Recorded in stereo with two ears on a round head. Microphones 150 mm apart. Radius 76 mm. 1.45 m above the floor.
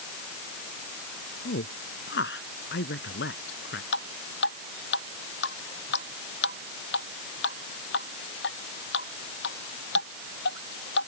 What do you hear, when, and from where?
1.4 s a woman speaking: 85° left
3.9 s dripping: 75° left (ahead or behind)